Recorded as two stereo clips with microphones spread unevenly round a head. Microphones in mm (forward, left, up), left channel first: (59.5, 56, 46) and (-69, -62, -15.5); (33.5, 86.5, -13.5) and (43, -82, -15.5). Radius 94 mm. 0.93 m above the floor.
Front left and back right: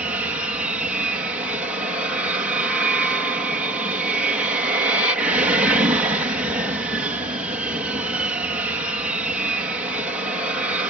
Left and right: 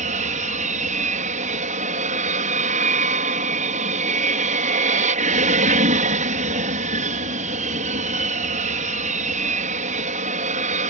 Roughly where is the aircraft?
Right.